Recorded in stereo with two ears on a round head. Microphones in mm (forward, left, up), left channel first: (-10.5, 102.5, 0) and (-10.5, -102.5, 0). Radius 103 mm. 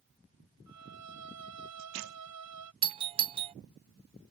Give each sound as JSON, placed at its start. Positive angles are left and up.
{"t": 0.7, "sound": "a violin", "side_deg": -80}
{"t": 2.8, "sound": "a doorbell", "side_deg": -25}